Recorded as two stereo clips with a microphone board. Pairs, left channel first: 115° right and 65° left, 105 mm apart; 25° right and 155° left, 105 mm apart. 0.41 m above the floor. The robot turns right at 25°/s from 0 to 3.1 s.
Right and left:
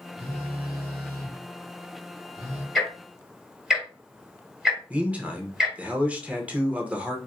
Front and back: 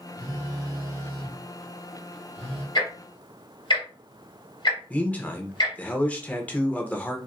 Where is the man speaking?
20° left, 0.8 m.